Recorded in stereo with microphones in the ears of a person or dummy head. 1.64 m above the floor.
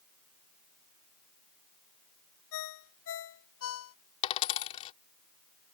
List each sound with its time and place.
2.5 s a ringtone: 80° left
4.2 s a dropped coin: 30° left (ahead or behind)